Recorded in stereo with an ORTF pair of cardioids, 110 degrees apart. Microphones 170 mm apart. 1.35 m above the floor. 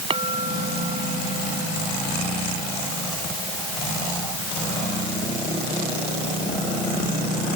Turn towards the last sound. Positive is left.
turn(degrees=-35)